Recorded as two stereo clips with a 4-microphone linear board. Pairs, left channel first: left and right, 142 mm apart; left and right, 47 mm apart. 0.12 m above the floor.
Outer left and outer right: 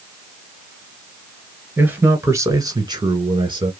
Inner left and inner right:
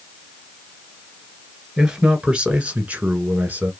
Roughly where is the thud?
I don't hear a thud.